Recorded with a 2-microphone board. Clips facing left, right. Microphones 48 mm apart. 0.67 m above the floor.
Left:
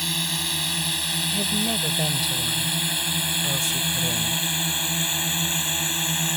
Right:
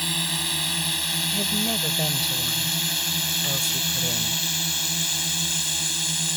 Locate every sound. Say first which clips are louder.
0.0 s a drone: even; 5° right (ahead or behind); by 6.4 s 25° left (ahead or behind)
1.3 s a woman speaking: left 1 dB; centre (ahead or behind)